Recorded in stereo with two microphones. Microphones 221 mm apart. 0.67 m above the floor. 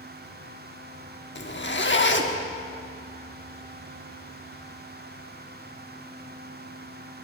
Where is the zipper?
50° left (ahead or behind), 1.1 m.